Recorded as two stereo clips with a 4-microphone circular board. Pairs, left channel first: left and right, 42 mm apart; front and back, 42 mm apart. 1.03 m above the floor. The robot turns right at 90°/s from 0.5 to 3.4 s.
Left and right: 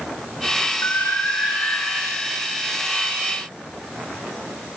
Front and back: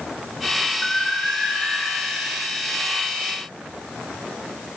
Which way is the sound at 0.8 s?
70° left.